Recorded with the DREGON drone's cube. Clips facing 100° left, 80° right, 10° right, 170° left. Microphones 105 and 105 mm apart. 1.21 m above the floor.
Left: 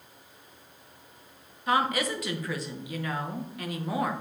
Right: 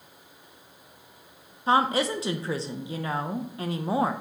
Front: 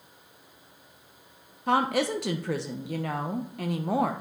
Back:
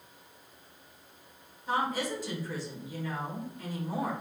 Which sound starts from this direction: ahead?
A woman speaking, at 1.7 s.